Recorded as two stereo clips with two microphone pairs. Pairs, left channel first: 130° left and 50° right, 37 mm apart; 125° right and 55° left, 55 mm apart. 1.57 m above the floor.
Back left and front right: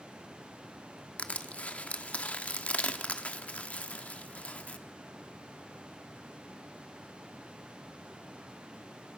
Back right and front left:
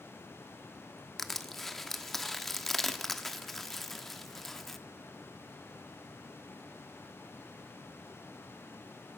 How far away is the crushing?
About 1.3 m.